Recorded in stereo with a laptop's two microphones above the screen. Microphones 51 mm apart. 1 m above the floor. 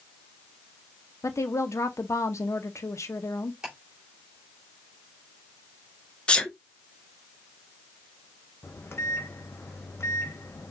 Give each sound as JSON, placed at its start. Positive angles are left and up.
{"t": 1.2, "sound": "a woman speaking", "side_deg": 70, "distance_m": 0.7}
{"t": 3.6, "sound": "ticking", "side_deg": -15, "distance_m": 2.5}
{"t": 6.3, "sound": "a sneeze", "side_deg": 20, "distance_m": 0.5}
{"t": 8.6, "sound": "a microwave", "side_deg": 55, "distance_m": 0.7}